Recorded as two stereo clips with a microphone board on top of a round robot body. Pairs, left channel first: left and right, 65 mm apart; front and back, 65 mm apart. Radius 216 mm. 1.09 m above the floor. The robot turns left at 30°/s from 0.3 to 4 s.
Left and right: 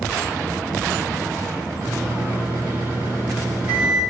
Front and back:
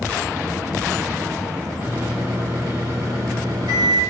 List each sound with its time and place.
1.8 s a microwave: 100° right, 3 m; by 4.0 s 170° right, 3 m